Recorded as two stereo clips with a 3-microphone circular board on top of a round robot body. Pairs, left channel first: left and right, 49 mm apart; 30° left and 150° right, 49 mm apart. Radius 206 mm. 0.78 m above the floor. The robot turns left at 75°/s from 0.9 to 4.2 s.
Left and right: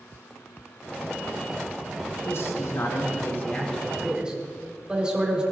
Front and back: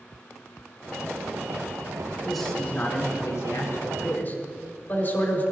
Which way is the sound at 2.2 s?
125° left.